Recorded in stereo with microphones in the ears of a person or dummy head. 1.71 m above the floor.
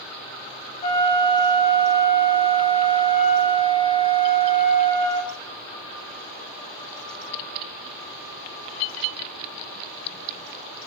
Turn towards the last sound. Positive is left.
turn(degrees=40)  # may be behind; listen again after turning